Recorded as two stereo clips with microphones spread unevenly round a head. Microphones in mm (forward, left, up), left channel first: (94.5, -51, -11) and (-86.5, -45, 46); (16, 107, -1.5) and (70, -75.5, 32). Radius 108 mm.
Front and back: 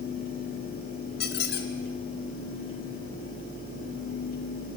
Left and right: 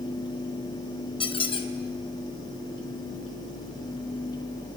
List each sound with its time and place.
1.2 s a squeak: 45° left, 1.8 m